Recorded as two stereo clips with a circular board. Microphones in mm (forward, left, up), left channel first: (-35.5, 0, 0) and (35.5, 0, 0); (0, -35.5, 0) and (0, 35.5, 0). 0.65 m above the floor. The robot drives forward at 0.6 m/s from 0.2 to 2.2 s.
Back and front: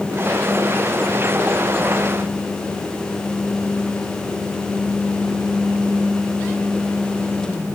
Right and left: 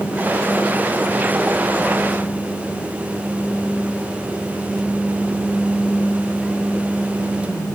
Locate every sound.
Only background noise.